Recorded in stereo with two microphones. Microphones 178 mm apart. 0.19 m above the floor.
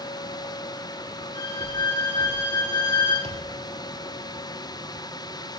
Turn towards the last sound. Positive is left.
turn(degrees=-40)  # may be behind; listen again after turning